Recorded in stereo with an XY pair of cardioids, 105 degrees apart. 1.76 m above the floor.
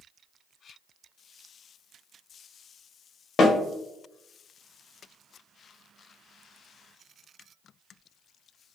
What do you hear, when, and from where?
3.4 s a snare drum: 50° left, 0.8 m